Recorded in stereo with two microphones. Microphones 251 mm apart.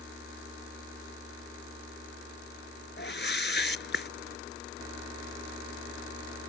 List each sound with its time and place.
3.0 s a whoosh: 45° left (ahead or behind)